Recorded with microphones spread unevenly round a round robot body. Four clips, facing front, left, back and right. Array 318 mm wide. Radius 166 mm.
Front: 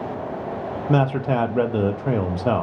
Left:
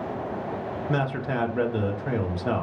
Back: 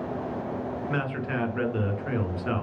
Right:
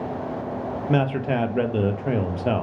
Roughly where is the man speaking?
Ahead.